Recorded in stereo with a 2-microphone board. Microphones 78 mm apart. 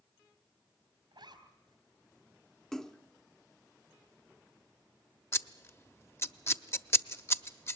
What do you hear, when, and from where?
1.1 s a zipper: 70° right (ahead or behind), 3.5 m
2.7 s a splash: 5° left (ahead or behind), 0.6 m
5.3 s scissors: 35° left (ahead or behind), 0.7 m